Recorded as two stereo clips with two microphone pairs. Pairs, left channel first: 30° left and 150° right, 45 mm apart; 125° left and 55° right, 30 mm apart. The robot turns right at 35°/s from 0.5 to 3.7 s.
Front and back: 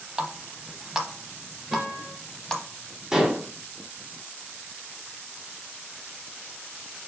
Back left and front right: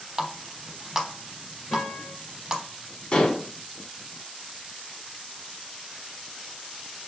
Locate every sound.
0.2 s a running tap: 110° right, 0.7 m; by 2.6 s 35° right, 0.7 m
1.7 s a guitar: 150° left, 2.5 m; by 2.1 s 165° left, 2.5 m
3.1 s dishes clattering: 145° left, 0.8 m; by 3.5 s 160° left, 0.8 m